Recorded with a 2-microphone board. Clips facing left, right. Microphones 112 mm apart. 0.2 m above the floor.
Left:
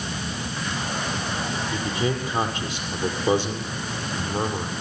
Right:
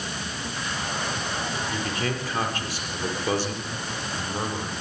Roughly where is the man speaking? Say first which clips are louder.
Left 6 dB; centre.